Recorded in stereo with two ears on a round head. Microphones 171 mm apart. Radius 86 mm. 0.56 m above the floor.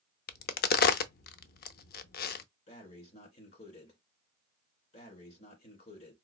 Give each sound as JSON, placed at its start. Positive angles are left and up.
{"t": 0.3, "sound": "a crack", "side_deg": 55, "distance_m": 0.5}
{"t": 2.7, "sound": "breathing", "side_deg": 40, "distance_m": 2.0}